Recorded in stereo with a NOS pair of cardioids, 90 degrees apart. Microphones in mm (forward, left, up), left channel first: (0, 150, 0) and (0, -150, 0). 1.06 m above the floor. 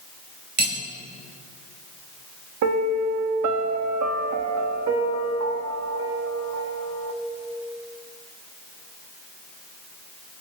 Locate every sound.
0.6 s cutlery clinking: 35° right, 3 m
2.6 s a piano: 65° right, 1.0 m